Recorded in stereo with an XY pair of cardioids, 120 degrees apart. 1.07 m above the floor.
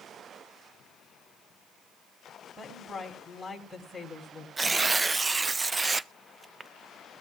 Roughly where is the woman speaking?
Ahead.